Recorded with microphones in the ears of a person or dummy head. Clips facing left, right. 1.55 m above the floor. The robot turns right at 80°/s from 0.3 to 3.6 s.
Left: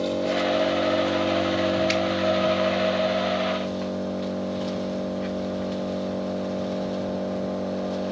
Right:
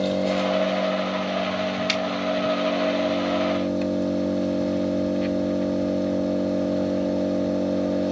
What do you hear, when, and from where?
0.0 s an engine running: 20° right (ahead or behind), 0.8 m
1.9 s a finger snap: 40° right (ahead or behind), 1.7 m; by 2.0 s 30° right (ahead or behind), 1.7 m